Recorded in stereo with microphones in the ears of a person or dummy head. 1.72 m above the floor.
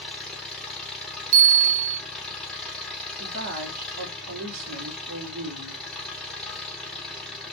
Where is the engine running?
5° left (ahead or behind), 0.9 m.